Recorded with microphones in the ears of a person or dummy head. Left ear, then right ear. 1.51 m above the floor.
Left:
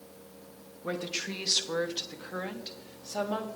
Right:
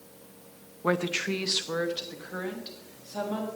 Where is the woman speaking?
35° right (ahead or behind), 0.6 m; by 3.5 s 35° left (ahead or behind), 1.6 m.